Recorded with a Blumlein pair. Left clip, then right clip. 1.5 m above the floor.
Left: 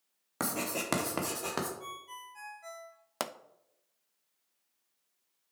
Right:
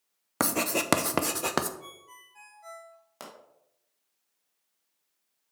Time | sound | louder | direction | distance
0.4 | writing | right 7 dB | 70° right | 0.8 m
1.8 | a ringtone | left 4 dB | 10° left | 1.6 m
3.2 | a pop | left 9 dB | 35° left | 0.5 m